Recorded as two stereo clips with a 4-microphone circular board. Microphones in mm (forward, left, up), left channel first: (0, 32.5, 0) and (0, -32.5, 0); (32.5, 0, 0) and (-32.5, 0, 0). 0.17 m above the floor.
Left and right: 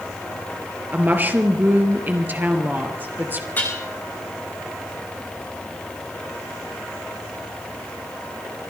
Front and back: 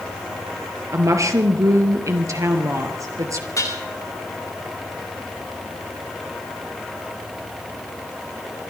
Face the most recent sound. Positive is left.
turn(degrees=30)